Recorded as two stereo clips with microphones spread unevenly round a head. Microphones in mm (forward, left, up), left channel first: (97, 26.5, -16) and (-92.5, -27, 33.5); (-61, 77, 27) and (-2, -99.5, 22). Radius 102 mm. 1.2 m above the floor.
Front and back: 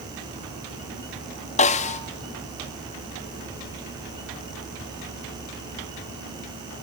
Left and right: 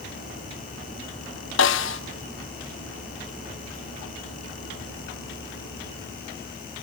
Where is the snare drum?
75° left, 1.0 m.